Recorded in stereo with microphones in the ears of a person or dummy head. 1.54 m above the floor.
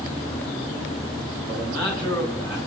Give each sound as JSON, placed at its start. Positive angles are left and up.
{"t": 1.5, "sound": "a man speaking", "side_deg": 30, "distance_m": 6.5}